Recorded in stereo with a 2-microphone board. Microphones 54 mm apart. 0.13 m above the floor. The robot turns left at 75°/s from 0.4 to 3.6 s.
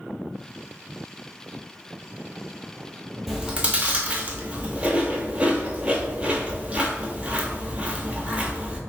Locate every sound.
3.3 s chewing: centre (ahead or behind), 0.6 m; by 8.8 s 25° right (ahead or behind), 0.6 m